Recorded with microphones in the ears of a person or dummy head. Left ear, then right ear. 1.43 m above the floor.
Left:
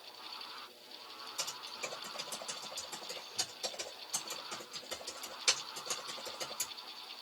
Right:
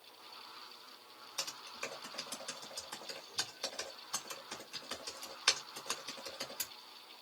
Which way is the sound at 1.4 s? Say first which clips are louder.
Even; 20° right (ahead or behind).